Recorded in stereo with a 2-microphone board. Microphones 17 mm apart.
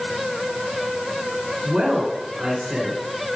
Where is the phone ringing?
No phone ringing in this recording.